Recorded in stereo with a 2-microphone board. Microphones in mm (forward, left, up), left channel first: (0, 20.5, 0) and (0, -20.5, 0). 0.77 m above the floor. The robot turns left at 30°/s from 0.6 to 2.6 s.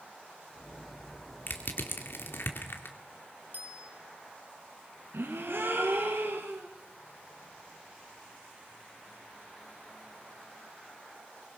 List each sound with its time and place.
1.5 s crushing: 55° left (ahead or behind), 2.5 m; by 3.0 s 65° left (ahead or behind), 2.5 m
3.5 s a bicycle bell: 45° right (ahead or behind), 3.5 m
5.1 s a gasp: 70° right (ahead or behind), 3.5 m